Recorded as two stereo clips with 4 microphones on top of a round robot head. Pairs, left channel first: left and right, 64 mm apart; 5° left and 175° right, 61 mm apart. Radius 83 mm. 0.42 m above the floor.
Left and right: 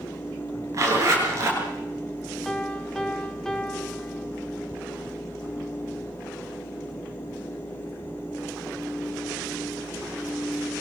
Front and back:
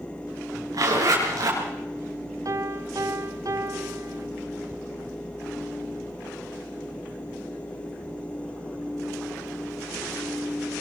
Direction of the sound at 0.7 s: 140° right.